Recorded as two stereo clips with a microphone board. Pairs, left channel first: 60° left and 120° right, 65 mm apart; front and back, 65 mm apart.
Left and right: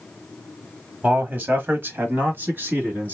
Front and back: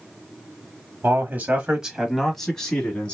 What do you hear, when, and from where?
1.0 s a man speaking: 160° right, 1.1 m; by 3.1 s 70° right, 1.6 m